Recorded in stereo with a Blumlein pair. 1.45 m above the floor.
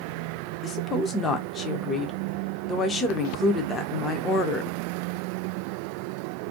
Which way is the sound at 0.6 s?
20° left.